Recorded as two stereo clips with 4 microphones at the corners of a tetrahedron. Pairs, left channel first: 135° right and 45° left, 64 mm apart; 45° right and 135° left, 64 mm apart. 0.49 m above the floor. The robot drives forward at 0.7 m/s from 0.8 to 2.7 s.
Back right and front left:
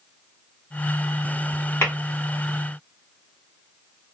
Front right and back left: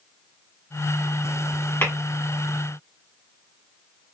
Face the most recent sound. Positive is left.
turn(degrees=-115)